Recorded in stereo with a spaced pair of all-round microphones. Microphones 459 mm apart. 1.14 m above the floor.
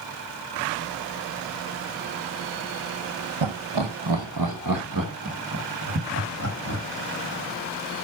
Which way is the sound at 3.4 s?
75° right (ahead or behind).